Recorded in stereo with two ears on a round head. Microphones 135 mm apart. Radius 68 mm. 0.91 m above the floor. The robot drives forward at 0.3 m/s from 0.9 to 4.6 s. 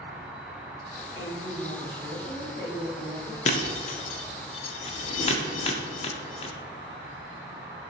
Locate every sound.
0.0 s an insect: 5° right (ahead or behind), 0.8 m
1.1 s a woman speaking: 30° left (ahead or behind), 1.1 m; by 3.4 s 20° left (ahead or behind), 1.7 m
3.5 s breaking glass: 45° left (ahead or behind), 0.5 m; by 6.5 s 40° left (ahead or behind), 0.6 m